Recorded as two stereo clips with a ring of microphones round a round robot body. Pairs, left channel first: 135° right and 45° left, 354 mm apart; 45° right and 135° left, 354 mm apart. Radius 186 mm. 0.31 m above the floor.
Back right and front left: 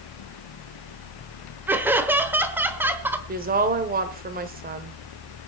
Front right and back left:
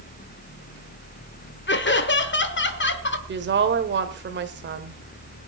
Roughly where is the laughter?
Ahead right.